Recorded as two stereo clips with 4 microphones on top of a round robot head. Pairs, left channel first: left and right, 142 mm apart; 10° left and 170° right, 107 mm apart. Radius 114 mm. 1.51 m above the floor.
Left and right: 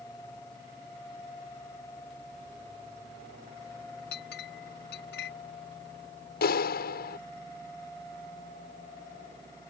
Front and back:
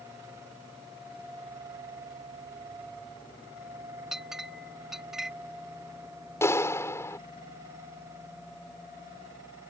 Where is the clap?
75° left.